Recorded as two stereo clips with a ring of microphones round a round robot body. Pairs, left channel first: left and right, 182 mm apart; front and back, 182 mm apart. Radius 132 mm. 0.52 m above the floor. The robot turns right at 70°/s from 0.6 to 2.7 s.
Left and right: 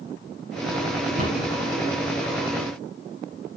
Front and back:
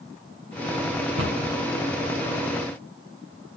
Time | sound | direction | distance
1.2 | a cupboard door | 155° right | 4 m